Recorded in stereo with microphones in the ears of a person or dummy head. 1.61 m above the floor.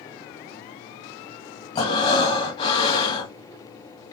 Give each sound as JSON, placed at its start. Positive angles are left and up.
{"t": 1.8, "sound": "breathing", "side_deg": 30, "distance_m": 1.5}